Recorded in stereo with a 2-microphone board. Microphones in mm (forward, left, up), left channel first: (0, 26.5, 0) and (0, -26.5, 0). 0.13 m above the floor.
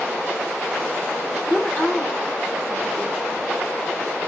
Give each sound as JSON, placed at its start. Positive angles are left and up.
{"t": 1.5, "sound": "a woman speaking", "side_deg": 35, "distance_m": 3.0}